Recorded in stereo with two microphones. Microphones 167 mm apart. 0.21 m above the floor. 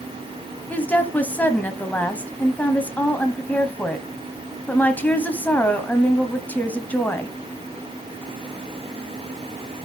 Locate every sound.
0.7 s a woman speaking: 10° left (ahead or behind), 1.0 m